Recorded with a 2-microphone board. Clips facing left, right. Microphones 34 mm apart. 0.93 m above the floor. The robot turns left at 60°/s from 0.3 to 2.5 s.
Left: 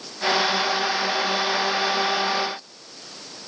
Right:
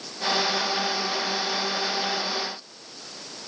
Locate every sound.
Only background noise.